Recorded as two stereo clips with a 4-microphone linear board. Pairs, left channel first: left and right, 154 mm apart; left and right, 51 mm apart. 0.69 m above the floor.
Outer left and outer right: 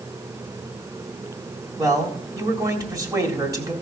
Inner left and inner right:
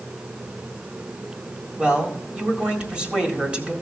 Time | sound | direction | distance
1.8 | a man speaking | 20° right (ahead or behind) | 1.8 m